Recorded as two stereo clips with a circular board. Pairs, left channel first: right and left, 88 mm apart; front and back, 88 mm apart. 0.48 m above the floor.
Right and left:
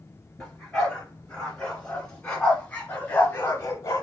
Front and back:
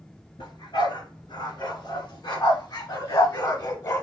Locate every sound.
0.4 s a dog barking: 5° right, 2.5 m; by 4.0 s 50° right, 0.7 m